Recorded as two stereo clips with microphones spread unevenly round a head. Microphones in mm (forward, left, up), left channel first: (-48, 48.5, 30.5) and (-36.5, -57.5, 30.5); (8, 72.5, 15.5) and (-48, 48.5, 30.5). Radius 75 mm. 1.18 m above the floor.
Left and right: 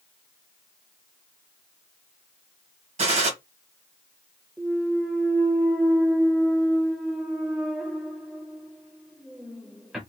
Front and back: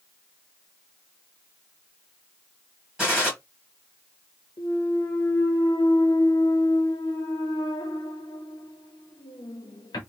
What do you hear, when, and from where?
3.0 s a gunshot: 65° right, 1.5 m
4.6 s a clunk: 5° left, 0.7 m